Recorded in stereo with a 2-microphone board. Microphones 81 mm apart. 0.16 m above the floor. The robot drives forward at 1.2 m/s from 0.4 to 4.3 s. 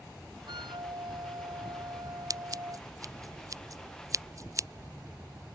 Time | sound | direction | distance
0.5 | a flute | 70° right (ahead or behind) | ?
2.3 | scissors | 45° right (ahead or behind) | ?